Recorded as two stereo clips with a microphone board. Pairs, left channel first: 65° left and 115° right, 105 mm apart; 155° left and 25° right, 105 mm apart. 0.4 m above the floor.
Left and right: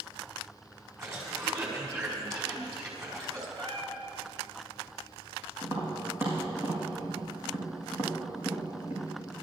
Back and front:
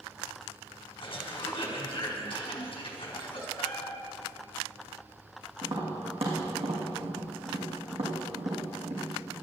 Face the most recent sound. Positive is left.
turn(degrees=-45)